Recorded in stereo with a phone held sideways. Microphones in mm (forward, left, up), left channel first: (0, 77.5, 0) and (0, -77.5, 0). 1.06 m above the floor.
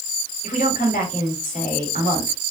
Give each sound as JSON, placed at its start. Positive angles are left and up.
{"t": 0.4, "sound": "a woman speaking", "side_deg": 60, "distance_m": 2.5}